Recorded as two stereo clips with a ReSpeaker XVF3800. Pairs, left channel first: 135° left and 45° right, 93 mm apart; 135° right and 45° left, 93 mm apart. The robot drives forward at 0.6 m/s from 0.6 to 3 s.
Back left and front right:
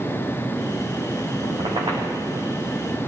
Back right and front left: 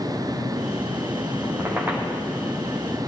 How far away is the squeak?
About 3.5 m.